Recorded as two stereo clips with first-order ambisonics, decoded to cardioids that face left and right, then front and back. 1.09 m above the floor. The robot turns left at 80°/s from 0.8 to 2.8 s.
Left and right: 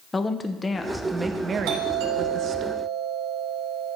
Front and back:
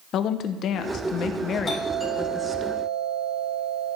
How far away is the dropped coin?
No dropped coin in this recording.